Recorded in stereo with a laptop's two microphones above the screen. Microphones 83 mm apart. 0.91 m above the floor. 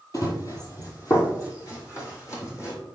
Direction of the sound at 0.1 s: 45° left (ahead or behind).